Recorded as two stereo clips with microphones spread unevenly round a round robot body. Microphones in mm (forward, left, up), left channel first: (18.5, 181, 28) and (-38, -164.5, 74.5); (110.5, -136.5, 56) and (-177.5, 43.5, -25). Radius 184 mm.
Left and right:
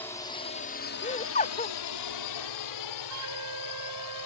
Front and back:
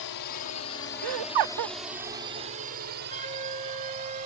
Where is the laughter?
150° left.